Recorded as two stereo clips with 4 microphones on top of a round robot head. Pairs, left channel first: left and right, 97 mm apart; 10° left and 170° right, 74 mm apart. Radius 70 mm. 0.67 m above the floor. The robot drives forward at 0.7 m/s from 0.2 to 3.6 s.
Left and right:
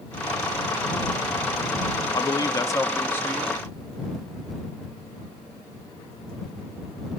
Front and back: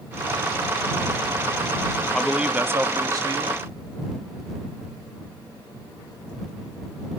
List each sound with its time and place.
2.1 s a man speaking: 85° left, 0.6 m; by 3.6 s 165° left, 1.2 m